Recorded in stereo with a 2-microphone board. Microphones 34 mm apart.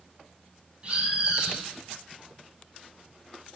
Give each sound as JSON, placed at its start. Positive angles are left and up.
{"t": 0.8, "sound": "a bird", "side_deg": -40, "distance_m": 2.5}